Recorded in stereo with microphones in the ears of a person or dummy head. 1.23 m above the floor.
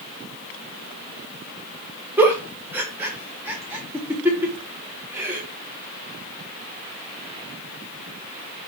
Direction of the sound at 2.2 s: 5° right (ahead or behind).